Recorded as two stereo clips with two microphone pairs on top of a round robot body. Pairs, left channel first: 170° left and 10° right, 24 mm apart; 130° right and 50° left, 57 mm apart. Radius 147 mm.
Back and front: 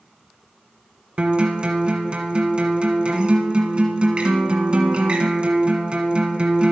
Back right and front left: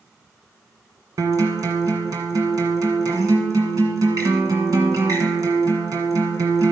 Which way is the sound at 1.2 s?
30° left.